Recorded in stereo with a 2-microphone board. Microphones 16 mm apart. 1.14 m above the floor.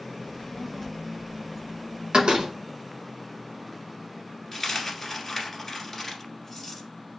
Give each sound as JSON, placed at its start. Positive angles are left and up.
{"t": 0.2, "sound": "a child speaking", "side_deg": 65, "distance_m": 0.7}
{"t": 2.1, "sound": "a door slam", "side_deg": -80, "distance_m": 0.9}
{"t": 4.5, "sound": "a dropped coin", "side_deg": 15, "distance_m": 1.5}